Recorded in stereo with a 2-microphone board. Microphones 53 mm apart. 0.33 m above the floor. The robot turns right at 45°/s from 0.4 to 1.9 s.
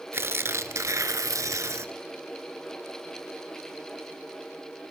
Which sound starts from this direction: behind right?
Tearing paper, at 0.1 s.